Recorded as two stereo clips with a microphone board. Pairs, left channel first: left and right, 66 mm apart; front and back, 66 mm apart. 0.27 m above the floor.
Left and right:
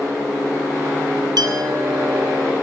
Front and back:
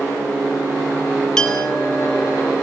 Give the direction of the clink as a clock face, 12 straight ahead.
3 o'clock.